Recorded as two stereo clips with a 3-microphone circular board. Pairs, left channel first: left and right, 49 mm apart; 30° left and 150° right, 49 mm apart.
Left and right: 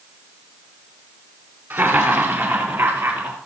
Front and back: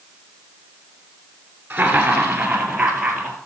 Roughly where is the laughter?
Right.